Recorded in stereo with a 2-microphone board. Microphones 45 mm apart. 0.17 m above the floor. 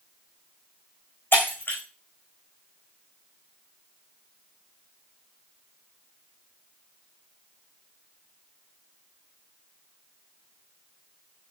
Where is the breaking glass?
50° left (ahead or behind), 4 m.